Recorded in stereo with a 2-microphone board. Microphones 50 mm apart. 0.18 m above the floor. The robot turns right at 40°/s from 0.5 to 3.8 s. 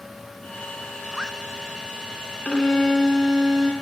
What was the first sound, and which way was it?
A zipper, 15° right (ahead or behind).